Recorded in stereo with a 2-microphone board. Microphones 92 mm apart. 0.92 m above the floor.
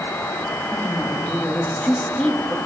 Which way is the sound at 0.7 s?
15° left (ahead or behind).